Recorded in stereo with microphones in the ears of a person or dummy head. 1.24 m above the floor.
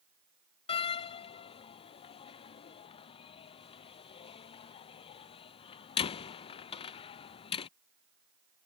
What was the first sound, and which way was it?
A door slam, 30° left (ahead or behind).